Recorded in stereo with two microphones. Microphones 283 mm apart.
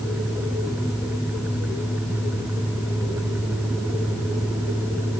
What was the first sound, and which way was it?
Only background noise.